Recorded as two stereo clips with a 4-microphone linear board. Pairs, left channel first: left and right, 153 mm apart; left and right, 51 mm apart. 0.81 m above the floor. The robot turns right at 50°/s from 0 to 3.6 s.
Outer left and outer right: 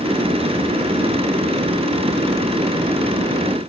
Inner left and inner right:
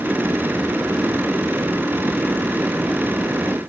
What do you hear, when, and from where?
Only background noise.